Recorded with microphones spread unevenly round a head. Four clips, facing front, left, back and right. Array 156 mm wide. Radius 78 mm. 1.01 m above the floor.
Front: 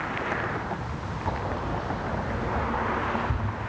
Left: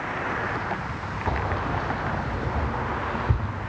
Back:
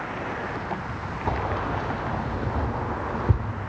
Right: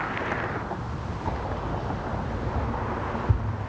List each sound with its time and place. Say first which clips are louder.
1.3 s keys jangling: left 4 dB, back 3 dB; 145° left, 2 m; by 3.5 s straight behind, 2.5 m